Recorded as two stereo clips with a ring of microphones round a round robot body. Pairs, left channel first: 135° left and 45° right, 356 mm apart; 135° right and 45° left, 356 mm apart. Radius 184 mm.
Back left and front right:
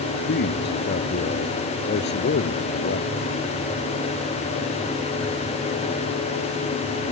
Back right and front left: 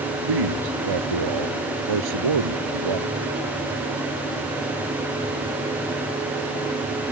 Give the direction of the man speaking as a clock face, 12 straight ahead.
10 o'clock.